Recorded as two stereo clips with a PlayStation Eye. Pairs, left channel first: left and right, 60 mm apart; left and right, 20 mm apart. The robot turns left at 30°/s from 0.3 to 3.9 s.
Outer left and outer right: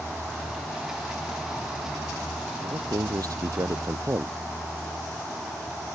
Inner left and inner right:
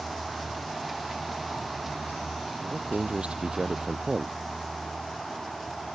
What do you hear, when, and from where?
2.6 s a man speaking: 90° right; by 4.4 s 130° right